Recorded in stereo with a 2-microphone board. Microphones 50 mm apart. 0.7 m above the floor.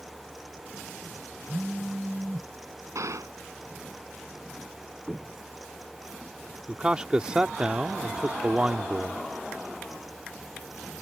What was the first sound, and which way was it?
A phone buzzing, 20° right (ahead or behind).